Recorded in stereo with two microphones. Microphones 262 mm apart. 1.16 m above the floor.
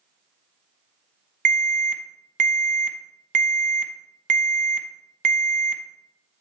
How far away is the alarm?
About 0.7 m.